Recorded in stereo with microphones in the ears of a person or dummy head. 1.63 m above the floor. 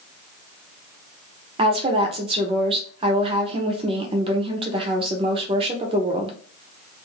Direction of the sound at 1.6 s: 30° right (ahead or behind).